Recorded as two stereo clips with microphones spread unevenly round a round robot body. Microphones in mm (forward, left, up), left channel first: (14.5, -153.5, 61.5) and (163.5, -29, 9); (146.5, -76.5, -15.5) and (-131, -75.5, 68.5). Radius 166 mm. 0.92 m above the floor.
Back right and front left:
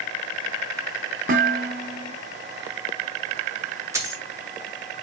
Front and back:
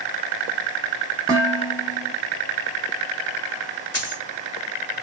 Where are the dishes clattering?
100° left, 1.2 m.